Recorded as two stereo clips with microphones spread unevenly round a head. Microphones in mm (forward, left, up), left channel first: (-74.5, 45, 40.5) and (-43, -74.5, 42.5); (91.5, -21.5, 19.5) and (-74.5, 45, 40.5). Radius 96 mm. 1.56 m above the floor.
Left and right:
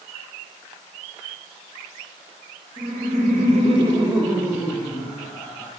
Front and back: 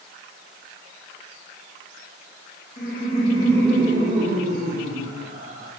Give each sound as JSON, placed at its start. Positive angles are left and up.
{"t": 2.8, "sound": "laughter", "azimuth_deg": -65, "distance_m": 0.8}